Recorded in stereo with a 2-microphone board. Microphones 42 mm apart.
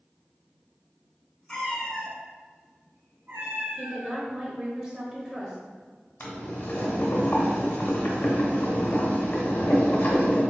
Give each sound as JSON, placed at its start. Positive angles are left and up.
{"t": 1.5, "sound": "a cat meowing", "side_deg": 15, "distance_m": 1.0}
{"t": 3.8, "sound": "a woman speaking", "side_deg": -20, "distance_m": 0.6}
{"t": 6.2, "sound": "boiling", "side_deg": 60, "distance_m": 0.8}